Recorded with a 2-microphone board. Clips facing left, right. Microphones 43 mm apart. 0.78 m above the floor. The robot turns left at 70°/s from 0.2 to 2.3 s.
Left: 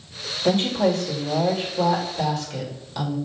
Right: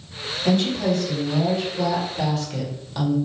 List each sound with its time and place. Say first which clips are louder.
0.5 s a woman speaking: left 1 dB; 120° left, 1.7 m; by 3.2 s 10° right, 1.7 m